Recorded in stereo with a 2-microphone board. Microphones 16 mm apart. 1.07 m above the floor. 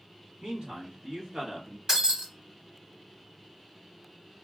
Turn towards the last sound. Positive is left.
turn(degrees=-40)  # may be behind; listen again after turning